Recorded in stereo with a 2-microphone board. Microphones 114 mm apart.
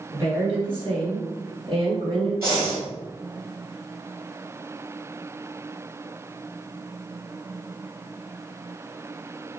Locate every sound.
0.1 s a woman speaking: 45° right (ahead or behind), 1.5 m
2.4 s breathing: 25° right (ahead or behind), 1.2 m